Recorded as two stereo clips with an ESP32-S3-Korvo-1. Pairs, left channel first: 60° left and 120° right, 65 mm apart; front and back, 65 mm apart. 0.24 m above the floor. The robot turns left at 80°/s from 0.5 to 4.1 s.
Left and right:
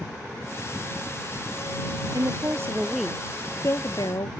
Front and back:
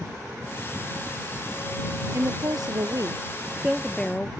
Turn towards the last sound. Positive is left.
turn(degrees=70)